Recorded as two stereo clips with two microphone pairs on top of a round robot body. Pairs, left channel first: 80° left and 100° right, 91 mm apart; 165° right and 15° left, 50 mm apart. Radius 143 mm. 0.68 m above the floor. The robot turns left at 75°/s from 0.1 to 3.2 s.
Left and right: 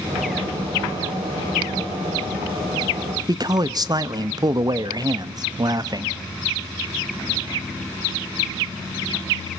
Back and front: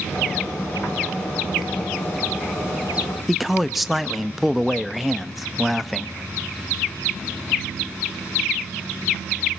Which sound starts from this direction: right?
A man speaking, at 3.3 s.